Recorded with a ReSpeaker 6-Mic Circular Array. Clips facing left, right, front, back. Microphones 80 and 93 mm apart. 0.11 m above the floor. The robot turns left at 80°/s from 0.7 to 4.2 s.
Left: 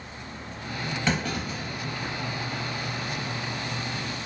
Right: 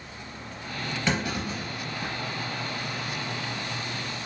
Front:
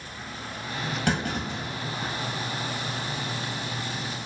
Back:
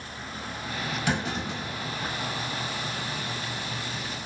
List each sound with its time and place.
1.1 s a clunk: 5° left, 1.4 m; by 2.1 s 80° right, 1.4 m